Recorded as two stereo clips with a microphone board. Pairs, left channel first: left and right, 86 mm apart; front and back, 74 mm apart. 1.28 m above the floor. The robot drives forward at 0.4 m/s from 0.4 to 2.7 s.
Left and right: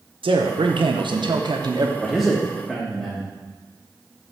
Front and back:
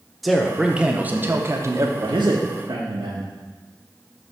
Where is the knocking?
No knocking in this recording.